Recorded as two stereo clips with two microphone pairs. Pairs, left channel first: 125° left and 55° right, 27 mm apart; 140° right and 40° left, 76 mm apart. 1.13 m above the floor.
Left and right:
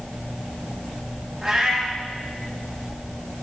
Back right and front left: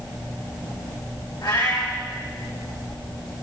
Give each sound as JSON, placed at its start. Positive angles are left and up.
{"t": 1.4, "sound": "a cat meowing", "azimuth_deg": -135, "distance_m": 3.5}